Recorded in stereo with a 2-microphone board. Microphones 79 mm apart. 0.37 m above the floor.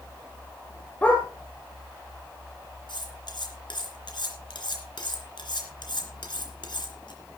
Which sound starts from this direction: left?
Cutlery clinking, at 2.9 s.